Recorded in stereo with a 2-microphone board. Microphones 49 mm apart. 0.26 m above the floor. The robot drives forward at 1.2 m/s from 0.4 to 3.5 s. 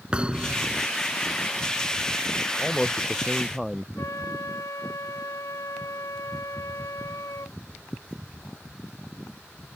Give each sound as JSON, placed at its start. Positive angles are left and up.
{"t": 0.1, "sound": "a thud", "side_deg": -20}
{"t": 2.6, "sound": "a man speaking", "side_deg": 0}
{"t": 4.0, "sound": "a flute", "side_deg": 90}